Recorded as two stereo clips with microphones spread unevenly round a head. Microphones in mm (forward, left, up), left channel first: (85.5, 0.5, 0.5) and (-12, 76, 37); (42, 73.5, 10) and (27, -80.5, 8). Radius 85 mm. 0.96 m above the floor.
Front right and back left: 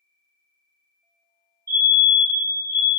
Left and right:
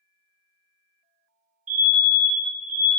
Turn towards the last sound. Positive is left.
turn(degrees=-135)